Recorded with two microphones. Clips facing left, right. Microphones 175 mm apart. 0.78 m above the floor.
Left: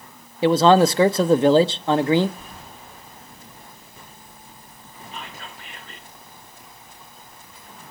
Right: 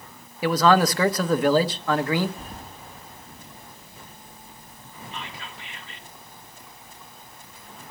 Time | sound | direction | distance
0.4 | a man speaking | 25° left (ahead or behind) | 0.7 m
2.4 | keys jangling | 40° right (ahead or behind) | 3 m
5.1 | whispering | 45° left (ahead or behind) | 2 m